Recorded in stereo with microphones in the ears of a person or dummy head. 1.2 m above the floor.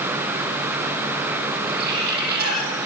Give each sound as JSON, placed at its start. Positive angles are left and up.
{"t": 1.7, "sound": "a bird", "side_deg": -65, "distance_m": 9.0}